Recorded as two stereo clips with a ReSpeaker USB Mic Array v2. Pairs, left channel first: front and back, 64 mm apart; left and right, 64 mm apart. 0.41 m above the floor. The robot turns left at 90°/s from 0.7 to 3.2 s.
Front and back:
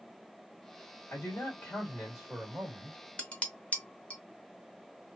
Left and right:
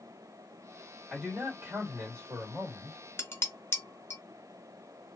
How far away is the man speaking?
About 1.6 m.